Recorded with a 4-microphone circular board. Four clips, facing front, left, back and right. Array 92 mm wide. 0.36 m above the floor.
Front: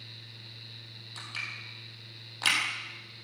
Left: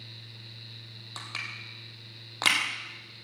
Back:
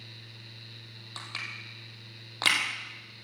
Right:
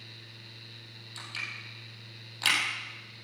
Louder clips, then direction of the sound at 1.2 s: Left 2 dB, back 1 dB; 125° left.